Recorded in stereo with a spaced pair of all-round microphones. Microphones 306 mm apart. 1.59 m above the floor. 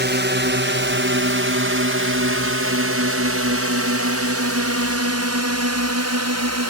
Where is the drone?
35° right (ahead or behind); by 6.7 s 60° right (ahead or behind).